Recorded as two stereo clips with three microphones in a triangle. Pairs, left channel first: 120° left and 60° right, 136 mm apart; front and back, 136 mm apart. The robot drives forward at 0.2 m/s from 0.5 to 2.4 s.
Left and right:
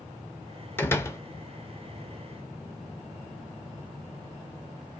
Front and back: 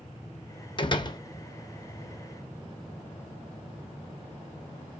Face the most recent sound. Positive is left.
turn(degrees=80)